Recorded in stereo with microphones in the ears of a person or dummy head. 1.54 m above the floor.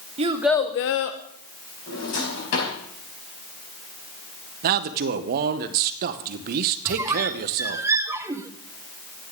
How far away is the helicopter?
I don't hear a helicopter.